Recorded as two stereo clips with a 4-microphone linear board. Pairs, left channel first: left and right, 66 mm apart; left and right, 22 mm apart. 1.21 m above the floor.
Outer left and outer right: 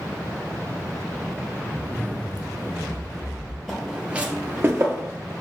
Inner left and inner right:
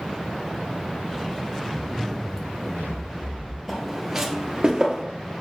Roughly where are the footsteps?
Centre.